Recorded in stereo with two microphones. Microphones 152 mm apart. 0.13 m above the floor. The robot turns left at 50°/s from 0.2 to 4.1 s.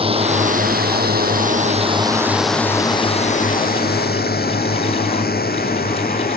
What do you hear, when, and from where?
0.0 s a drone: 35° right (ahead or behind); by 6.4 s 70° left (ahead or behind)